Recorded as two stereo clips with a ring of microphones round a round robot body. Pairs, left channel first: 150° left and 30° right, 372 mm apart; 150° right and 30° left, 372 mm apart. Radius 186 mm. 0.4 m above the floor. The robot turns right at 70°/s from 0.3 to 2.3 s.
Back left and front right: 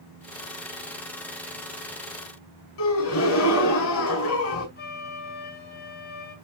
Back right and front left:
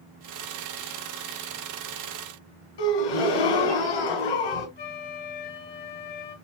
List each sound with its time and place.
2.8 s a gasp: 160° right, 4 m
4.8 s a flute: 145° right, 2 m